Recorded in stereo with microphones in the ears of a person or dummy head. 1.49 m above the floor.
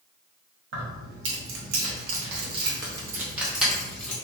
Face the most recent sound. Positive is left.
turn(degrees=5)  # may be behind; listen again after turning